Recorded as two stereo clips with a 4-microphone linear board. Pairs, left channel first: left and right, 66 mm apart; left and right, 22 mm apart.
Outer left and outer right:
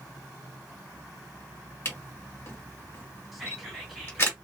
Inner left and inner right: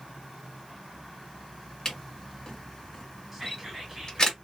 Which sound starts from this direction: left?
A camera shutter, at 1.9 s.